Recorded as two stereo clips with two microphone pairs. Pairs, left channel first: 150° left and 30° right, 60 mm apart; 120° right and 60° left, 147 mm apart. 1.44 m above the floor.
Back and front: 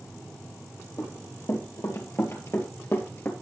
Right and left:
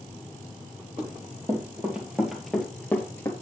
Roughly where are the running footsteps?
Behind left.